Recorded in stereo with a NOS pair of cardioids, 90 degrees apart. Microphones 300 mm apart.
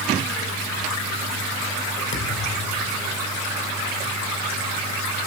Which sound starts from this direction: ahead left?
A thud, at 2.1 s.